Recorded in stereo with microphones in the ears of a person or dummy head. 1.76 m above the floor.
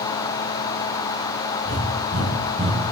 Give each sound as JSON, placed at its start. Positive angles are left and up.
{"t": 1.6, "sound": "breathing", "side_deg": -30, "distance_m": 2.5}